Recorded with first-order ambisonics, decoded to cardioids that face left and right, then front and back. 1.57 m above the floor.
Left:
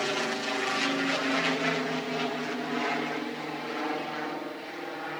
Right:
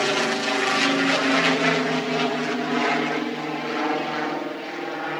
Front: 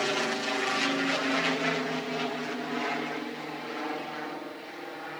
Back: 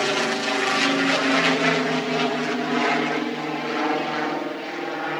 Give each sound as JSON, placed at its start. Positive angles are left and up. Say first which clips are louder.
{"t": 0.0, "sound": "an aircraft", "louder": "right 7 dB, back 6 dB", "azimuth_deg": -130}